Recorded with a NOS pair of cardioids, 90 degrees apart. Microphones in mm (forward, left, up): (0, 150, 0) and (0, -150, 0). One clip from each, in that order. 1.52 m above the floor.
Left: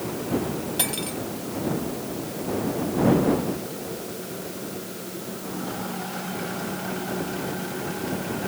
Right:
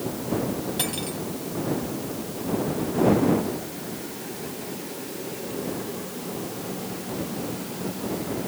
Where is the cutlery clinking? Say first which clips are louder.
Left 1 dB; 20° left.